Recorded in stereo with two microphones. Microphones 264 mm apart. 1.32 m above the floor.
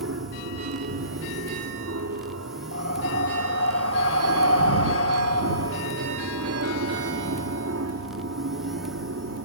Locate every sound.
0.0 s an aircraft: 70° right (ahead or behind); by 9.5 s 65° right (ahead or behind)
2.7 s breathing: 60° left (ahead or behind)